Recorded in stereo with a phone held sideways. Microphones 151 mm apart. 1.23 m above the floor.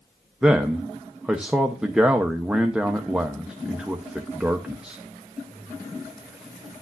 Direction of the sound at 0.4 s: 5° right (ahead or behind).